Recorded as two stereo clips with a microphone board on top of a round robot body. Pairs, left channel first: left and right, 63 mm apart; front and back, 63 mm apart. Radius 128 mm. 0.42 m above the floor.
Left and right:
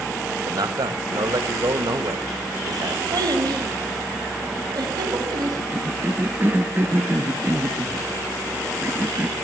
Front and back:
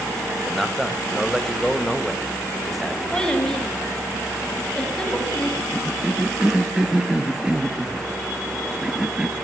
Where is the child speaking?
75° right, 3.5 m.